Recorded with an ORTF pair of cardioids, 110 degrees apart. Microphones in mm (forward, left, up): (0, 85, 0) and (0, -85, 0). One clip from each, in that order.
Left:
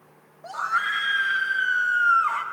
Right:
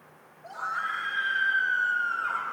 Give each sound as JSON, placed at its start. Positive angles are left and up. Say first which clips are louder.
{"t": 0.4, "sound": "a scream", "louder": "left 6 dB", "azimuth_deg": 70, "distance_m": 2.5}